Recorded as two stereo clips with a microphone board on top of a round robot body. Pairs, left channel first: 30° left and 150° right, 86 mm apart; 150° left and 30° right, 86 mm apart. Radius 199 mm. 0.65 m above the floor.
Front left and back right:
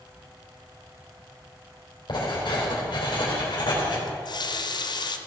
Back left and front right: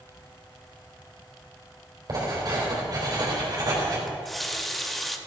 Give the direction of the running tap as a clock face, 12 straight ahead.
10 o'clock.